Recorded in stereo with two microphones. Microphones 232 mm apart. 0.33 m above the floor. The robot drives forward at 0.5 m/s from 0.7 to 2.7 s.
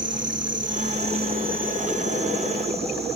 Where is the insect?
55° right (ahead or behind), 1.0 m; by 3.2 s 30° right (ahead or behind), 1.8 m.